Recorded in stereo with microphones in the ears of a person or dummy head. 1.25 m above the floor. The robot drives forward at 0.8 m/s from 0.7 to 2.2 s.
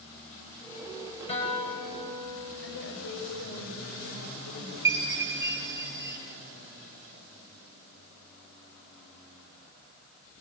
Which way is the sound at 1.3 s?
35° left (ahead or behind).